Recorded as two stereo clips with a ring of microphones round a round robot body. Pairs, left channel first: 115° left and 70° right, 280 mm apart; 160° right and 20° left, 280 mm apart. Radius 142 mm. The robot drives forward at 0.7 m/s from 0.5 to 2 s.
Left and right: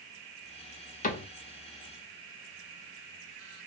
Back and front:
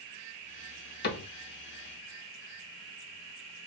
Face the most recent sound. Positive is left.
turn(degrees=170)